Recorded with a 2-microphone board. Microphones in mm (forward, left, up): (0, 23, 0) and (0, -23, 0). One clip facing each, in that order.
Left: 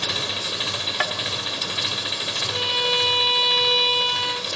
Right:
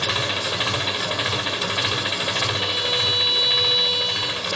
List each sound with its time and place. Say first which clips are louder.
0.0 s an engine running: right 4 dB; 25° right (ahead or behind), 1.3 m
1.0 s tapping: left 1 dB; 50° left (ahead or behind), 2.0 m
2.5 s a violin: left 1 dB; 35° left (ahead or behind), 1.0 m